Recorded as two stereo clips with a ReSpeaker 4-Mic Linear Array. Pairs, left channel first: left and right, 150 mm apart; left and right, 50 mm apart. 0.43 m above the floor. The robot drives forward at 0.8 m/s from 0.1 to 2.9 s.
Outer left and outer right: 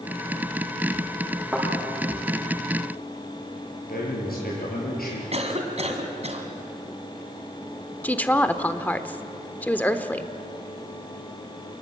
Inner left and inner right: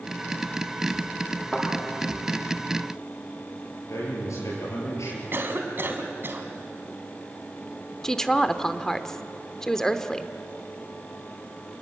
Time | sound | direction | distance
1.5 | a thud | 5° right (ahead or behind) | 9 m
3.9 | a man speaking | 85° left | 7.5 m
5.3 | a cough | 45° right (ahead or behind) | 3 m
8.0 | a woman speaking | 10° left (ahead or behind) | 0.9 m